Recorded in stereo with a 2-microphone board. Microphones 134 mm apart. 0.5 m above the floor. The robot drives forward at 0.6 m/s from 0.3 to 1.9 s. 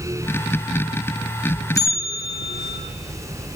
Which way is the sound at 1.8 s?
25° left (ahead or behind).